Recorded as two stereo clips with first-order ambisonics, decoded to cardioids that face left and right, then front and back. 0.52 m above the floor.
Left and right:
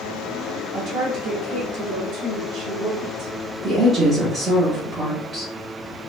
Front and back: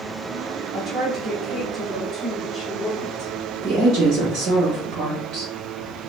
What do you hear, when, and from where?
0.7 s a woman speaking: 120° right, 0.9 m; by 3.3 s 95° right, 1.9 m
3.6 s a woman speaking: 150° right, 1.0 m